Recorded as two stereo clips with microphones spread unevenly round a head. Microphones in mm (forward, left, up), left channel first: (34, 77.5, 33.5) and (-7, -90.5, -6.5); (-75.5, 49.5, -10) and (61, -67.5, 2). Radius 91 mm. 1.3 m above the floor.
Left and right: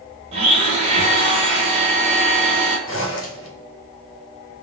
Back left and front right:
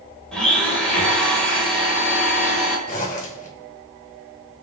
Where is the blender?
130° right, 1.1 m.